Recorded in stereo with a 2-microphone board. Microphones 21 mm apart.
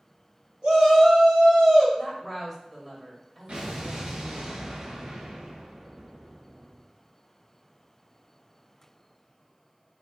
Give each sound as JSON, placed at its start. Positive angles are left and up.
{"t": 0.6, "sound": "a shout", "side_deg": -45, "distance_m": 2.0}
{"t": 2.0, "sound": "a woman speaking", "side_deg": 0, "distance_m": 1.6}
{"t": 3.5, "sound": "an explosion", "side_deg": -60, "distance_m": 1.4}